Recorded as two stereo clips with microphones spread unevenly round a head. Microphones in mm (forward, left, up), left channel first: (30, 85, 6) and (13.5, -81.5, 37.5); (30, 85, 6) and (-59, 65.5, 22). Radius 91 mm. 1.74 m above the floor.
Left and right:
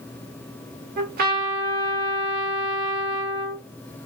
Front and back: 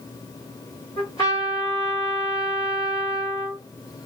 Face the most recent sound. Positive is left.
turn(degrees=-60)